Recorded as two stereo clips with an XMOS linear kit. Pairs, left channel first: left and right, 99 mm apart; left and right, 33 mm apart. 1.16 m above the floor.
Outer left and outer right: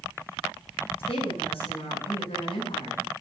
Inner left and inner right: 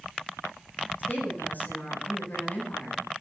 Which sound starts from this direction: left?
A woman speaking, at 1.0 s.